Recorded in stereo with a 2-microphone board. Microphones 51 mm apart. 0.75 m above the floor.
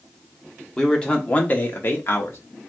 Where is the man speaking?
10° left (ahead or behind), 1.3 m; by 2.4 s 60° left (ahead or behind), 1.2 m.